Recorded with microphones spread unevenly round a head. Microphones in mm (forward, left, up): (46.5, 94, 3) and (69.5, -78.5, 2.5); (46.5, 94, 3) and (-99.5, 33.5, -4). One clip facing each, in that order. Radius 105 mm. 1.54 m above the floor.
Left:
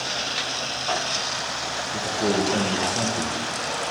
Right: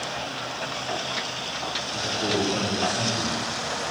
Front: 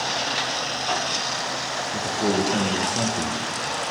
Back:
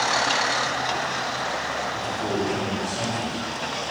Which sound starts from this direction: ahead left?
A man speaking, at 1.9 s.